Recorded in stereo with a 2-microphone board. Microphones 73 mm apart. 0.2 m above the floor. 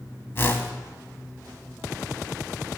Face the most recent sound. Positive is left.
turn(degrees=30)  # may be behind; listen again after turning